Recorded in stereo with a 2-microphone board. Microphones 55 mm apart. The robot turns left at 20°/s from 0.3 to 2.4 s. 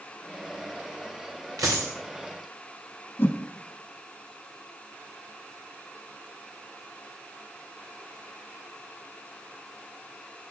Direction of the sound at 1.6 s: 85° right.